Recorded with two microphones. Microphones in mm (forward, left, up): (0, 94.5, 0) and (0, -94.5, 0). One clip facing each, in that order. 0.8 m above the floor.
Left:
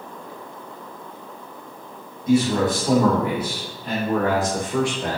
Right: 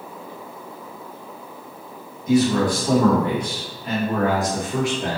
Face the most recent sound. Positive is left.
turn(degrees=-25)  # may be behind; listen again after turning